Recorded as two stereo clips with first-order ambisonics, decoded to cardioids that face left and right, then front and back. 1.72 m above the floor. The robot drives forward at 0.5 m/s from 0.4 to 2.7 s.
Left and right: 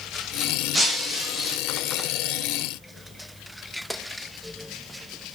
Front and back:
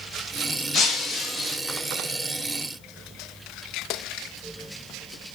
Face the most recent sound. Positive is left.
turn(degrees=-175)